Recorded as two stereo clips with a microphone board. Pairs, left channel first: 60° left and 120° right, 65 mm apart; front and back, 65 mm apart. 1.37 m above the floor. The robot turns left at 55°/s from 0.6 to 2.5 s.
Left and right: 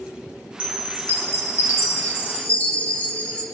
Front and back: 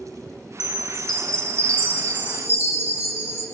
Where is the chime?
110° left, 1.5 m; by 3.4 s 5° left, 1.5 m.